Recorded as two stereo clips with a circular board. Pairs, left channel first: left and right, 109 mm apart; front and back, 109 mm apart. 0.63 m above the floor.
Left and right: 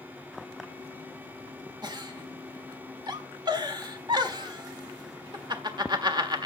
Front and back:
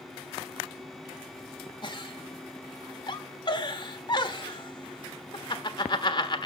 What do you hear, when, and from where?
1.8 s a giggle: 45° right, 1.4 m